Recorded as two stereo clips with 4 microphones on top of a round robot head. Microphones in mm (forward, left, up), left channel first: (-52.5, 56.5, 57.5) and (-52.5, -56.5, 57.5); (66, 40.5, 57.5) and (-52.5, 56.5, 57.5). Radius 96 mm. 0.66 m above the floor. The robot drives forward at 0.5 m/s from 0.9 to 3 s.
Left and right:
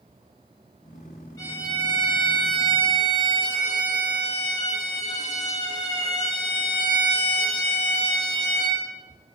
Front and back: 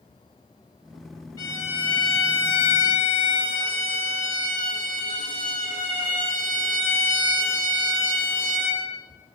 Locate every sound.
1.4 s a violin: 45° left, 0.7 m; by 8.8 s 135° left, 0.7 m